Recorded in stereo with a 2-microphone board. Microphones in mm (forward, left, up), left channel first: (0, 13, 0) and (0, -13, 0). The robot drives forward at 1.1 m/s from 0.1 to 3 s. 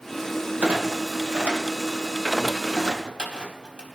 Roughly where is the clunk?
Right.